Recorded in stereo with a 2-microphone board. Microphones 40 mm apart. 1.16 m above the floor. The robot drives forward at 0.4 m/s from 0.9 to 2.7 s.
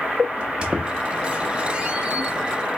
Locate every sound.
0.4 s a squeak: 25° right (ahead or behind), 0.7 m